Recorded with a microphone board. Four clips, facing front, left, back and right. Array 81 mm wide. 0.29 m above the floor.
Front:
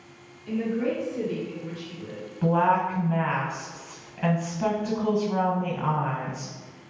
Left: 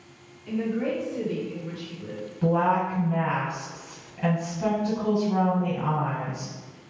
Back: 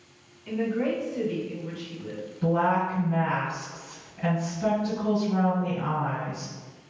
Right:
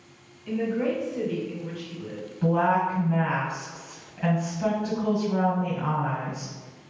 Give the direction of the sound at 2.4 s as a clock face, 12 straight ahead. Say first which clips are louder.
Even, front 2 dB; 12 o'clock.